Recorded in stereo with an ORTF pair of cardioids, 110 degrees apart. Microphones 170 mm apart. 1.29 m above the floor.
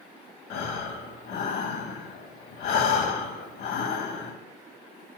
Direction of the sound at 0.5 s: 70° left.